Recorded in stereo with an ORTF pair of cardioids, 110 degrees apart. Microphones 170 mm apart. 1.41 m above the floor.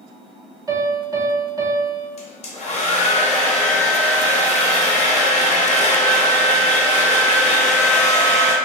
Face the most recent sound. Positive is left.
turn(degrees=35)